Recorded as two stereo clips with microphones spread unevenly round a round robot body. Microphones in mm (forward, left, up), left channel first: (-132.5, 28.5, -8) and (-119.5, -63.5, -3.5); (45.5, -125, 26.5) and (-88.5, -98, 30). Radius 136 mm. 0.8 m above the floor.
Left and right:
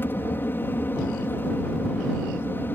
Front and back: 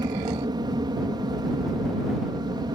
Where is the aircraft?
140° left.